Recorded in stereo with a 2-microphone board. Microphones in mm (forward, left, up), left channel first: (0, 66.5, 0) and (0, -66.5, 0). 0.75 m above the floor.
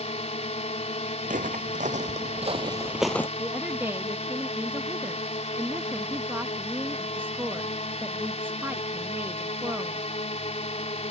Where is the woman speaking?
15° right (ahead or behind).